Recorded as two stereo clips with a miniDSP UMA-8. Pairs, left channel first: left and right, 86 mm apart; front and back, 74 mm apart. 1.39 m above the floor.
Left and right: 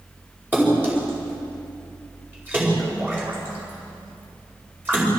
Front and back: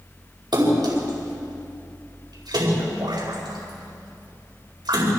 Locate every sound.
0.5 s a splash: 160° right, 5 m